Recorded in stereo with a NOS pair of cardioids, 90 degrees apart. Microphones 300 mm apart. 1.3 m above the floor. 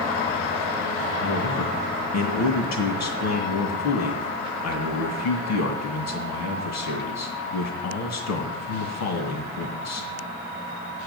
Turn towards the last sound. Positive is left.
turn(degrees=70)